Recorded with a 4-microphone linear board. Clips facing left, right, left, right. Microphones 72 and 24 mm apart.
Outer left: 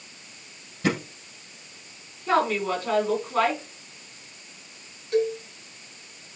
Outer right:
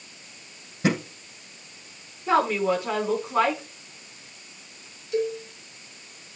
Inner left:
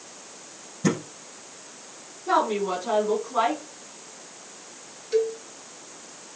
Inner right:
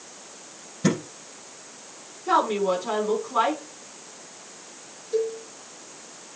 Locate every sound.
0.8 s a thud: 25° right (ahead or behind), 6.5 m
2.3 s a woman speaking: 15° right (ahead or behind), 5 m
5.1 s a cowbell: 55° left (ahead or behind), 2.5 m